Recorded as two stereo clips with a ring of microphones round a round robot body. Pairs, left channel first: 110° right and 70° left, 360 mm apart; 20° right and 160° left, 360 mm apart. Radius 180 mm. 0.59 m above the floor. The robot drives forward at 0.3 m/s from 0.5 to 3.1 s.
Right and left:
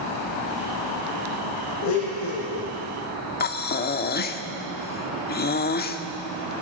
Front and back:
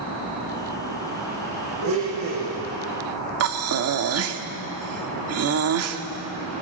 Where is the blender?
155° right, 10 m.